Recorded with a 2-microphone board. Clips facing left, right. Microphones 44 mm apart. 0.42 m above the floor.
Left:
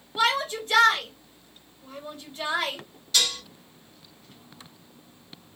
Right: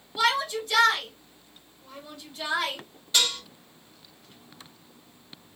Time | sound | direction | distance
0.2 | a shout | 35° left (ahead or behind) | 1.6 m
3.1 | dishes clattering | 25° right (ahead or behind) | 1.6 m